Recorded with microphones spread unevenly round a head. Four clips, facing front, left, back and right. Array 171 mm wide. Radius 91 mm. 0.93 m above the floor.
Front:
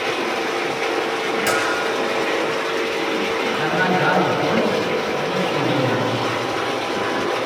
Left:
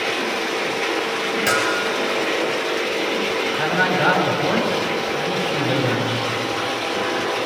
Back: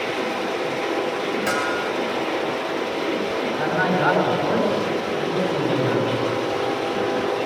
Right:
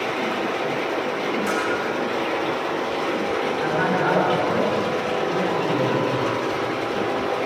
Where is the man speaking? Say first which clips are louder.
Left 3 dB, front 1 dB; 115° left, 7 m.